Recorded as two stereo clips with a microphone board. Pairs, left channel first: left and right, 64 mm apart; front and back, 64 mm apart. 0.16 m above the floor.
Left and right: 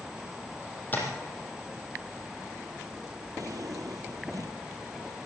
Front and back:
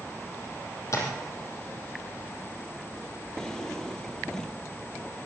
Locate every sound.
0.9 s tapping: 30° left, 4 m
3.4 s a drawer: 80° right, 1.9 m